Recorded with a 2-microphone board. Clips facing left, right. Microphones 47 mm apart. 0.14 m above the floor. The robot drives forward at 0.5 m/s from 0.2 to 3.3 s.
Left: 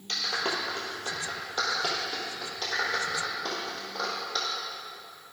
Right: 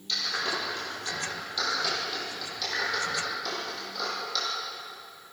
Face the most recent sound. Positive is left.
turn(degrees=35)  # may be behind; listen again after turning